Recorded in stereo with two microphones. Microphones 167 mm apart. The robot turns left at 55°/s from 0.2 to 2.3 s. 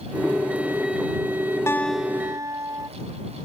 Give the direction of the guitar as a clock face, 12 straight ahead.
11 o'clock.